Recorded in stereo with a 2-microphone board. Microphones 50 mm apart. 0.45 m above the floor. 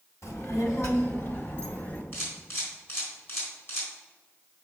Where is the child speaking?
70° left (ahead or behind), 1.9 m; by 2.0 s 40° left (ahead or behind), 2 m.